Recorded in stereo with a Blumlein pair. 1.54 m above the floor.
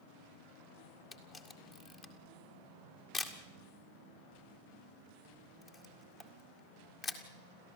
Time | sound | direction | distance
1.1 | a camera shutter | 20° left | 1.9 m